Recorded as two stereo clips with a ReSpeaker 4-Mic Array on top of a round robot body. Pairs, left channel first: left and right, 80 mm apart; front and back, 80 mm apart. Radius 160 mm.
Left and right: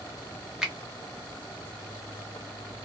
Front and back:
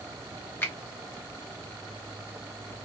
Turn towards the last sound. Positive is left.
turn(degrees=-20)